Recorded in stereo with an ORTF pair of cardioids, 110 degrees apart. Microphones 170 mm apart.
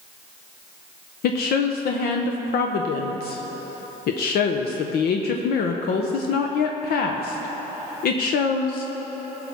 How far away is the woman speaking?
About 0.8 m.